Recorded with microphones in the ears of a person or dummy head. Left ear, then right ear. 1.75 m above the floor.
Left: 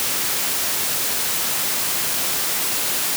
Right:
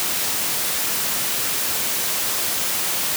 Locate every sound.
Only background noise.